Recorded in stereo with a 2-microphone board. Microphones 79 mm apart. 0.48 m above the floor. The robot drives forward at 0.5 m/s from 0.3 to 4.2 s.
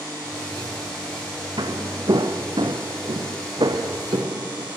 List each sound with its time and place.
1.6 s footsteps: 60° right (ahead or behind), 2.5 m